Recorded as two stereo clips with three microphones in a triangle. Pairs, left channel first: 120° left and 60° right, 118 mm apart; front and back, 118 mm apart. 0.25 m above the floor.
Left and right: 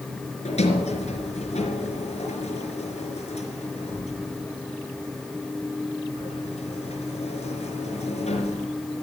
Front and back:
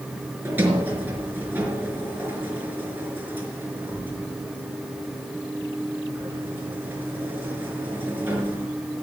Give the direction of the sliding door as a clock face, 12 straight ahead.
8 o'clock.